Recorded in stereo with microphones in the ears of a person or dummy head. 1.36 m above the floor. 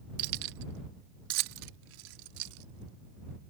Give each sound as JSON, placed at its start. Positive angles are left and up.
{"t": 0.2, "sound": "keys jangling", "side_deg": -55}